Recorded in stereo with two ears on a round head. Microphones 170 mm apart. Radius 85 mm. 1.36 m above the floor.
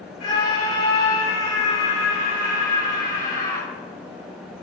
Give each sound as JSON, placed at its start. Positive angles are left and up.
{"t": 0.2, "sound": "a scream", "side_deg": 35, "distance_m": 8.0}